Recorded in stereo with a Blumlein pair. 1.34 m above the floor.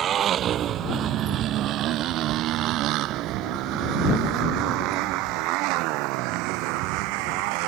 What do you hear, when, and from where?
0.0 s a motorcycle: 25° right; by 7.7 s 45° right